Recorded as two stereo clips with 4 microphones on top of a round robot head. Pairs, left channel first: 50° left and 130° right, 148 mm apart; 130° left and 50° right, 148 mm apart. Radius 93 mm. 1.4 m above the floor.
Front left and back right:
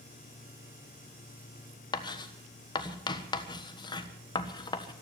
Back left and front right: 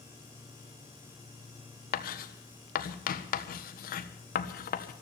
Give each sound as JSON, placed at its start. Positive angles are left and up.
{"t": 1.9, "sound": "writing", "azimuth_deg": 110, "distance_m": 1.4}